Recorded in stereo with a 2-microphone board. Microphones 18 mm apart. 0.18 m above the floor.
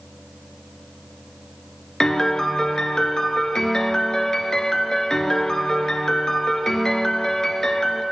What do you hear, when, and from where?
2.0 s a piano: 40° left (ahead or behind), 0.6 m